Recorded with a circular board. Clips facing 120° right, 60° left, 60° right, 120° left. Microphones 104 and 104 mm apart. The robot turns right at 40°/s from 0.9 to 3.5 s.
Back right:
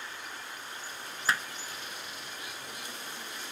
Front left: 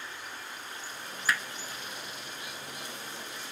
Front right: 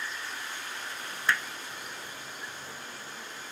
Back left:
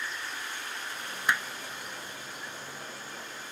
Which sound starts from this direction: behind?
Hammering, at 1.3 s.